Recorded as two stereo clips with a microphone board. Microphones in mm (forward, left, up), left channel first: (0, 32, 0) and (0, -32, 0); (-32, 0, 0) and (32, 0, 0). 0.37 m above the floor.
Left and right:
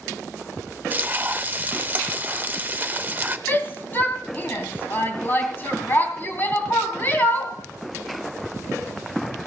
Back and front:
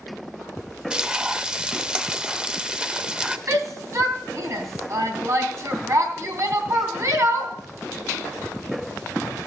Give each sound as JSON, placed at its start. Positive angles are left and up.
{"t": 0.9, "sound": "frying", "azimuth_deg": -60, "distance_m": 0.5}
{"t": 3.5, "sound": "a shout", "azimuth_deg": 35, "distance_m": 2.5}